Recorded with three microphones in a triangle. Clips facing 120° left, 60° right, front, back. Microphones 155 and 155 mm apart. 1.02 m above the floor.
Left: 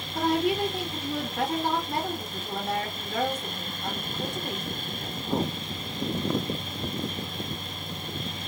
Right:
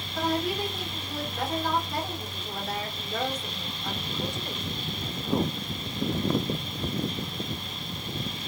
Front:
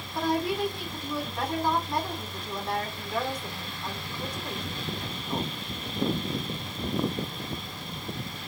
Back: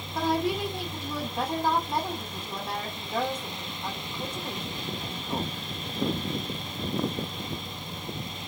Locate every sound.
0.1 s a woman speaking: 105° left, 2.5 m